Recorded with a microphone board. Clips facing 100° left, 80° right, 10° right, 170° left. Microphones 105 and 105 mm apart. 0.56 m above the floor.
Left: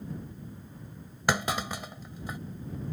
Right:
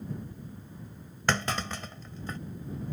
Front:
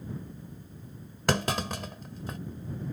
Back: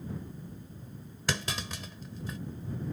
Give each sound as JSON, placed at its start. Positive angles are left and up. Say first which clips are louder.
{"t": 1.3, "sound": "a clunk", "louder": "left 1 dB, front 7 dB", "azimuth_deg": 20}